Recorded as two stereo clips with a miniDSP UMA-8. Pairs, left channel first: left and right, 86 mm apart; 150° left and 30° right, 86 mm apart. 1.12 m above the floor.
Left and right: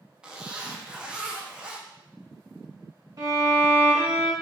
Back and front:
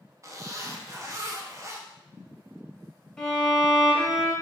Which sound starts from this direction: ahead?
A zipper, at 0.2 s.